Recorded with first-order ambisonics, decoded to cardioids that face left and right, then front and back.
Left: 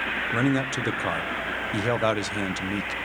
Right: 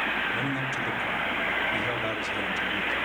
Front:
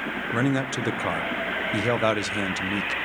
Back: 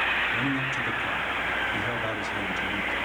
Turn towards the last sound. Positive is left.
turn(degrees=40)